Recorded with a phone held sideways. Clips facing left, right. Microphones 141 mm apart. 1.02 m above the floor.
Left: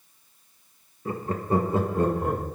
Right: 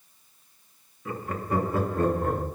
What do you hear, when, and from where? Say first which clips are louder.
1.1 s laughter: left 3 dB; 35° left (ahead or behind), 0.8 m; by 2.5 s 15° left (ahead or behind), 1.4 m